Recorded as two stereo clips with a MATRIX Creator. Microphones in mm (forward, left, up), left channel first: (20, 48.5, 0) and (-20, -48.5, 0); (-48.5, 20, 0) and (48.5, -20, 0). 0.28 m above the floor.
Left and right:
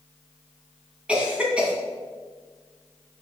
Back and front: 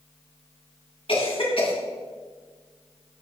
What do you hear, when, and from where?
1.1 s a cough: 170° left, 2.5 m